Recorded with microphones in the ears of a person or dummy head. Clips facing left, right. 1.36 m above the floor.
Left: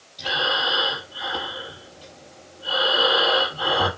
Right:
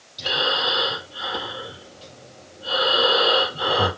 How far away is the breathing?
About 4 m.